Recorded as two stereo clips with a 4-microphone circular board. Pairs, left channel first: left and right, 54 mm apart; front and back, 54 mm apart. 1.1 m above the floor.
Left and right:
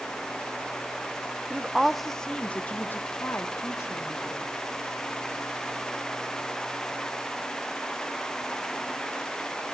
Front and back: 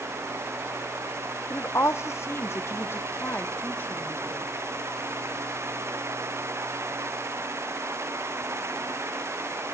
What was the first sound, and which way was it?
A woman speaking, 25° right.